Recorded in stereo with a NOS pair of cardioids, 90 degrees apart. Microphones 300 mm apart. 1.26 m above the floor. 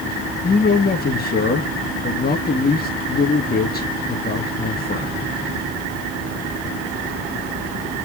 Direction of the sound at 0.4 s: 30° left.